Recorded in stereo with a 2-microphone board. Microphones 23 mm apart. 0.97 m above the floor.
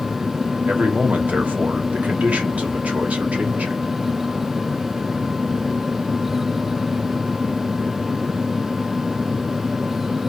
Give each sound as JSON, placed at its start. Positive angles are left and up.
{"t": 0.7, "sound": "a man speaking", "side_deg": -80, "distance_m": 1.3}